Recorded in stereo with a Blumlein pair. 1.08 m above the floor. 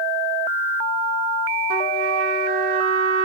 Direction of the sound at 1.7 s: 45° right.